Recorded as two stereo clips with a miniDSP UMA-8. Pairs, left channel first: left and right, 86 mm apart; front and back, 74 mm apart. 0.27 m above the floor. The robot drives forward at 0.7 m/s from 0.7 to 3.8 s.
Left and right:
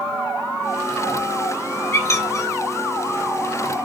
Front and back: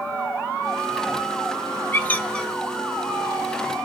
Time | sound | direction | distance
1.9 | a squeak | 45° left | 1.0 m